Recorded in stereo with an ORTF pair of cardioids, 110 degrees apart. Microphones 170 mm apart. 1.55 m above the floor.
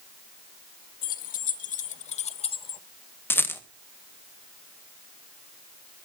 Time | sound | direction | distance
1.0 | keys jangling | 60° left | 1.8 m
3.3 | a rattle | 10° left | 1.9 m